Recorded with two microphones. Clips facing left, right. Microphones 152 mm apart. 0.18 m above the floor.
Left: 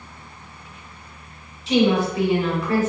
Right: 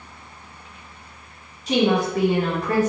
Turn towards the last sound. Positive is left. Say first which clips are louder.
# left 1 dB
turn(degrees=-45)  # may be behind; listen again after turning